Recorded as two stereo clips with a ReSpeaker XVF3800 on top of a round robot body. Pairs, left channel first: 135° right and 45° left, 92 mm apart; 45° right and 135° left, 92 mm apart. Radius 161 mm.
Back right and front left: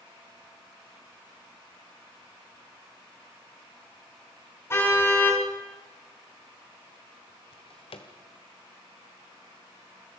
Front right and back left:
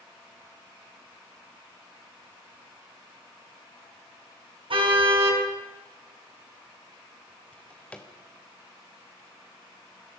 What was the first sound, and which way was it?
A car horn, 160° left.